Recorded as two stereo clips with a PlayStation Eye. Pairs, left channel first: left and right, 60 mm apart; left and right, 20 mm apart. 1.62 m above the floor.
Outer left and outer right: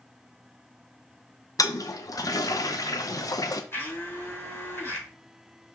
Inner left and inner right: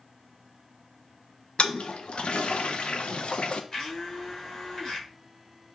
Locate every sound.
1.6 s a toilet flushing: 75° left (ahead or behind), 0.9 m
3.7 s a blender: 40° left (ahead or behind), 4.5 m